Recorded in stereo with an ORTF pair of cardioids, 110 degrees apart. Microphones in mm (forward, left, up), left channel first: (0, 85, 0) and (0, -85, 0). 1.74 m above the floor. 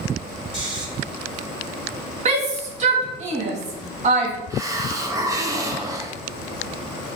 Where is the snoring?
30° right, 4 m.